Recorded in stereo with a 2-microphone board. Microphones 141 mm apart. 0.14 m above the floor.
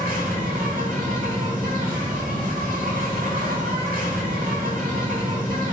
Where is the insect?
90° right, 1.5 m.